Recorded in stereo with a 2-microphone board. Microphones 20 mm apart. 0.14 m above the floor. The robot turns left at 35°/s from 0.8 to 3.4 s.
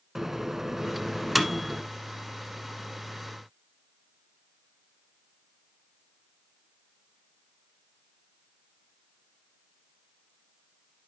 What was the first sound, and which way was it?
A microwave, 20° right (ahead or behind).